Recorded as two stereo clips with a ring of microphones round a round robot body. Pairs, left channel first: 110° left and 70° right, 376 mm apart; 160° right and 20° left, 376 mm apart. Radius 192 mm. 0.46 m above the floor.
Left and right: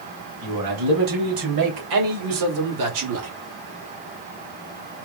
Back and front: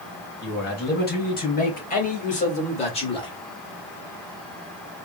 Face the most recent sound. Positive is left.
turn(degrees=-85)